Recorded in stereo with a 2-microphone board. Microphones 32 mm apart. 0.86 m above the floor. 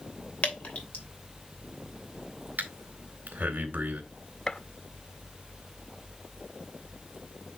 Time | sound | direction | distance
0.4 | dripping | 55° left (ahead or behind) | 2.5 m
2.6 | breathing | 75° right (ahead or behind) | 2 m
4.5 | a gunshot | 25° left (ahead or behind) | 0.5 m